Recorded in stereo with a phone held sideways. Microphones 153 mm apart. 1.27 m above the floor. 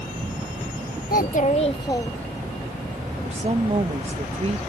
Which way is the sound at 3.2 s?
40° right (ahead or behind).